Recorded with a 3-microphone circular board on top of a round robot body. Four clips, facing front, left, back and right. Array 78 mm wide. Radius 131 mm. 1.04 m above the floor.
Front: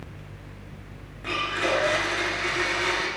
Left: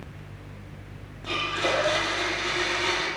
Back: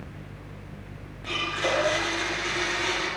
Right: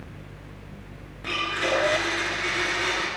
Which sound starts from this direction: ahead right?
A blender, at 1.2 s.